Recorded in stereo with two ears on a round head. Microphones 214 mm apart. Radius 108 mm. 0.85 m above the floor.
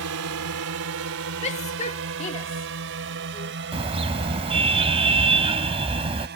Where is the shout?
30° left (ahead or behind).